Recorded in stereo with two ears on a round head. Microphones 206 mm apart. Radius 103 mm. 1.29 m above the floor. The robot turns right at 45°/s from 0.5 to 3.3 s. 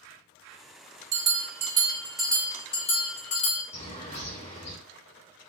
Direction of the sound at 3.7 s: 30° left (ahead or behind).